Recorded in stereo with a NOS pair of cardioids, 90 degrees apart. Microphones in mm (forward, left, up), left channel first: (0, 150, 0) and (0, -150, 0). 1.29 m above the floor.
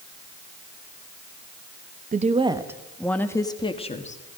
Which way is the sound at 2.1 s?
25° right.